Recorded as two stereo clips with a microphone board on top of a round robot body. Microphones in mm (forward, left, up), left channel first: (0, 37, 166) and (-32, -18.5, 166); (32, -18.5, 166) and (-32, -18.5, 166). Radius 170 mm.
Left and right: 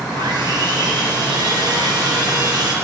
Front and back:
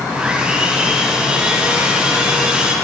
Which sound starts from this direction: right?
Sawing, at 0.1 s.